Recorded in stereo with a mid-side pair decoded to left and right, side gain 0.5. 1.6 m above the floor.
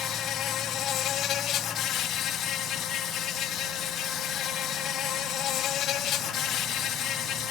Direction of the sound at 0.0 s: 65° left.